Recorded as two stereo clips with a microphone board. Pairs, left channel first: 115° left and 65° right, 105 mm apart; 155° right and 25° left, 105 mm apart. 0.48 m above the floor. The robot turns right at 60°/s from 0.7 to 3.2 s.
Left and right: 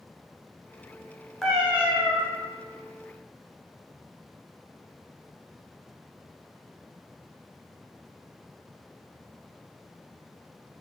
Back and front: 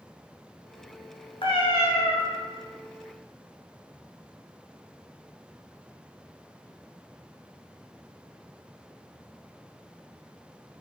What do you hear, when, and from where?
1.4 s a cat meowing: 165° right, 0.7 m; by 2.2 s 115° right, 0.7 m